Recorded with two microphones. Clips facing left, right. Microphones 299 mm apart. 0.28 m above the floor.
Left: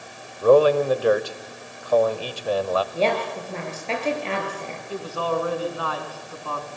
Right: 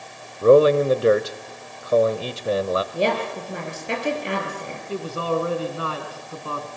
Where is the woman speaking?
15° right (ahead or behind), 5.5 m.